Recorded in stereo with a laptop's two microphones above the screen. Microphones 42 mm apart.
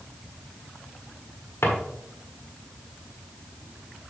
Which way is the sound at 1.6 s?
75° left (ahead or behind).